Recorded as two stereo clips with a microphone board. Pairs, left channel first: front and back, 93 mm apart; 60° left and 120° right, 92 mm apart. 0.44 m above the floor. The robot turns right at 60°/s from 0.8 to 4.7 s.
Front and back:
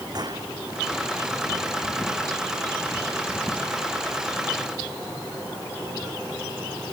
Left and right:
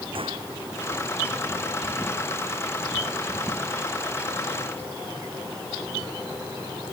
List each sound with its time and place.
0.1 s a gunshot: 135° right